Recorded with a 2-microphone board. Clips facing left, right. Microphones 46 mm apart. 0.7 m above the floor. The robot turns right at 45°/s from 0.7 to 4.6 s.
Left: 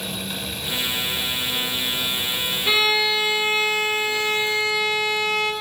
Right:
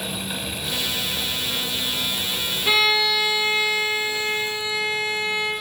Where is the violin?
10° right, 0.6 m; by 5.5 s 80° left, 0.6 m.